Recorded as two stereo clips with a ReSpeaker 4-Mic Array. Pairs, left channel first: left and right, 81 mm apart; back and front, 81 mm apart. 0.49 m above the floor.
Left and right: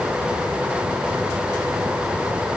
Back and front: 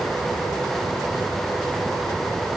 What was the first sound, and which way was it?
Only background noise.